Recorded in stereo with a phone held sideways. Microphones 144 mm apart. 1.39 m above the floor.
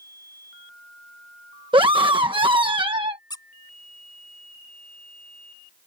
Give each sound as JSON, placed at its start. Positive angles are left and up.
{"t": 1.7, "sound": "a scream", "side_deg": -35}
{"t": 3.3, "sound": "a squeak", "side_deg": 30}